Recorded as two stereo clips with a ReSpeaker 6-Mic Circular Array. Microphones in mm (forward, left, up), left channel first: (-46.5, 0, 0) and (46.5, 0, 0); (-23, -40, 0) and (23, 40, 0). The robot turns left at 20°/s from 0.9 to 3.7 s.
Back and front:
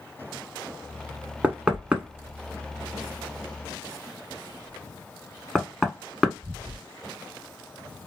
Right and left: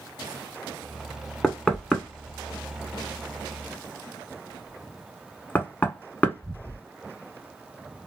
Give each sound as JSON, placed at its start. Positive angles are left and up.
{"t": 1.4, "sound": "knocking", "azimuth_deg": -45, "distance_m": 0.9}